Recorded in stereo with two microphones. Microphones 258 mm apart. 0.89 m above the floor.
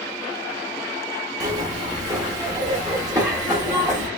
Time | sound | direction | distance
1.4 | a zipper | 15° right (ahead or behind) | 1.2 m